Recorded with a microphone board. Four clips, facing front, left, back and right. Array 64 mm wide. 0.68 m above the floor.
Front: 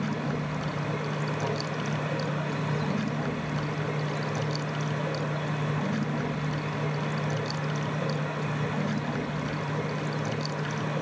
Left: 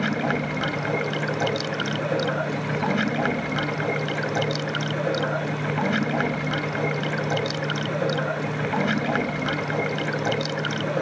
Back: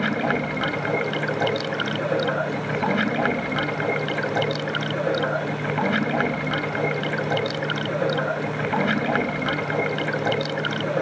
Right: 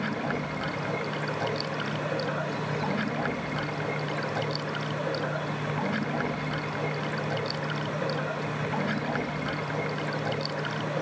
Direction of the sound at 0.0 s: 160° left.